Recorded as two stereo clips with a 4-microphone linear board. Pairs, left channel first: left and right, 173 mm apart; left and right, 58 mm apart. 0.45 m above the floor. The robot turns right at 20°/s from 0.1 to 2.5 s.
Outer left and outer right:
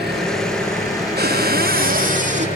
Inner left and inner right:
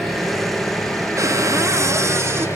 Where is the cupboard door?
70° right (ahead or behind), 1.9 m; by 2.5 s 45° right (ahead or behind), 1.9 m.